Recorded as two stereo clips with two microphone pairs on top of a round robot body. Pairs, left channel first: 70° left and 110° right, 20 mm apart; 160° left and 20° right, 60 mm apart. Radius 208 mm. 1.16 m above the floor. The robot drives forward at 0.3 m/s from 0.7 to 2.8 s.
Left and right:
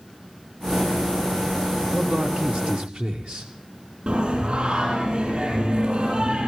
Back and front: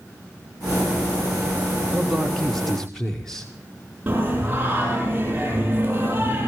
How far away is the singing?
About 9 m.